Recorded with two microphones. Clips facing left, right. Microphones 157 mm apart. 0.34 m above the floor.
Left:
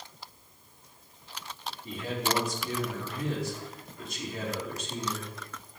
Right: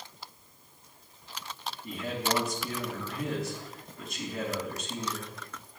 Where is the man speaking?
65° right (ahead or behind), 3.5 m.